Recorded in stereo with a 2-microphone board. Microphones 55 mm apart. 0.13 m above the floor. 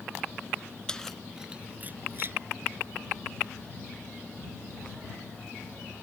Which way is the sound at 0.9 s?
15° left (ahead or behind).